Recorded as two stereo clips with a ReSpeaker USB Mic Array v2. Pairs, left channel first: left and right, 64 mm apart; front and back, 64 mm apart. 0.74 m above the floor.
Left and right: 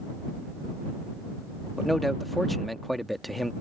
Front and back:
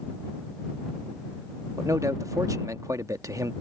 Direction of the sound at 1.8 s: Straight behind.